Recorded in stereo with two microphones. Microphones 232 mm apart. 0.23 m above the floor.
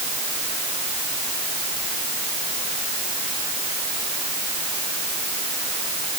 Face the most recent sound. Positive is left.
No sound to turn to.